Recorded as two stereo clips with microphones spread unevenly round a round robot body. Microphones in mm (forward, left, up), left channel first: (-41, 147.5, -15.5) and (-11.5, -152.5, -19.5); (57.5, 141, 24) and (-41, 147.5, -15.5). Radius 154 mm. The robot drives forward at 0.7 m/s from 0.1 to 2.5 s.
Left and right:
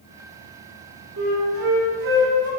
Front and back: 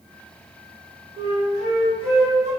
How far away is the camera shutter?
No camera shutter in this recording.